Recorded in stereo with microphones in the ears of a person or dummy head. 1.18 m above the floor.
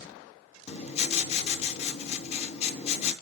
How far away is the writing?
About 0.6 m.